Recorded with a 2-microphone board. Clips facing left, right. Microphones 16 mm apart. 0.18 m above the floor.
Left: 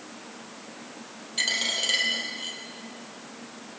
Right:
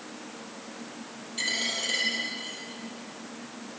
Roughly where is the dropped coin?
Left.